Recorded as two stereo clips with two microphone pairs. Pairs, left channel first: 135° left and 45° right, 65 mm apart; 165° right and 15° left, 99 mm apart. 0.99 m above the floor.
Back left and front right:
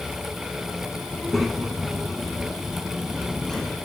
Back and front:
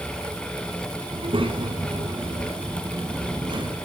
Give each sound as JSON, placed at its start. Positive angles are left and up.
{"t": 1.1, "sound": "a child speaking", "azimuth_deg": 45, "distance_m": 5.0}